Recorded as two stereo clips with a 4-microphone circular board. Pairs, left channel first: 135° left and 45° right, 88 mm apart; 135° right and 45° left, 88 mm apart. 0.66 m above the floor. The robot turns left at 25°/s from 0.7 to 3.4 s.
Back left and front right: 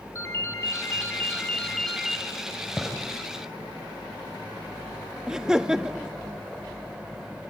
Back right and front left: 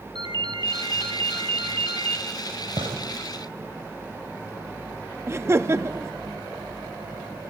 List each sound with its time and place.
0.1 s a ringtone: 80° left, 3.5 m; by 2.2 s 40° left, 3.5 m
2.8 s a gunshot: 45° left, 4 m; by 3.0 s 40° left, 4 m
5.3 s laughter: 30° left, 0.5 m